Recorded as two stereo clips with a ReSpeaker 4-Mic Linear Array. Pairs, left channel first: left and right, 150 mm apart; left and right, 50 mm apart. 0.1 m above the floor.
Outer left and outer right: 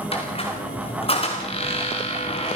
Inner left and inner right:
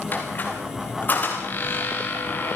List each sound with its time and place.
0.1 s a squeak: 40° left (ahead or behind), 4.5 m